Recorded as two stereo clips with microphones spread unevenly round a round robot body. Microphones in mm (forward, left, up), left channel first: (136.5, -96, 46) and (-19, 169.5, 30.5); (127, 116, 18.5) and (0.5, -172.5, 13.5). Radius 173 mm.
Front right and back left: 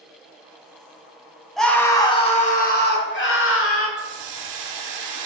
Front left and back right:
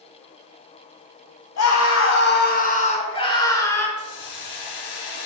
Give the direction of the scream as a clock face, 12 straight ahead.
11 o'clock.